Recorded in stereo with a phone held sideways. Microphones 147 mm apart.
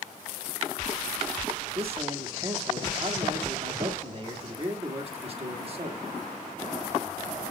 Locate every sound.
1.8 s a man speaking: 40° right (ahead or behind), 1.6 m